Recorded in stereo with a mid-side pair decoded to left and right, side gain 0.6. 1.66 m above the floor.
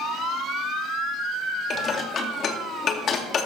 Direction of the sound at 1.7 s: 45° left.